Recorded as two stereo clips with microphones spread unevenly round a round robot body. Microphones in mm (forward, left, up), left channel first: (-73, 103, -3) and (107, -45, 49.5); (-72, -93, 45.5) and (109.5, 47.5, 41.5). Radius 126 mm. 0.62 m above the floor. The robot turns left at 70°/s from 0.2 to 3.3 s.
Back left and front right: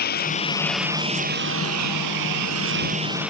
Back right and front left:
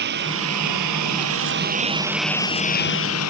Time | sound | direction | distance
0.0 | a lawn mower | 90° left | ?